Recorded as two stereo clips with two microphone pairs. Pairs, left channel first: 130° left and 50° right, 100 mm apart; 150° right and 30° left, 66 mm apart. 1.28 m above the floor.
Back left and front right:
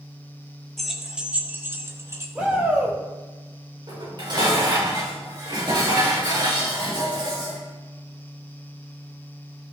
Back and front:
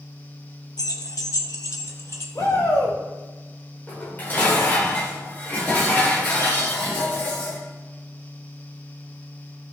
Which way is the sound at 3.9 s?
85° right.